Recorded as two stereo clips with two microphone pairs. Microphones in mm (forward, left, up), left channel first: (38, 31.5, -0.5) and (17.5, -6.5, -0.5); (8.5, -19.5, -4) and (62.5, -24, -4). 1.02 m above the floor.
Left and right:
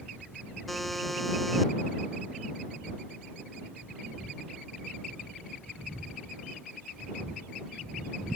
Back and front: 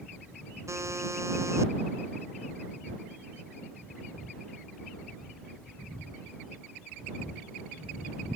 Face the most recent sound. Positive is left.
turn(degrees=-25)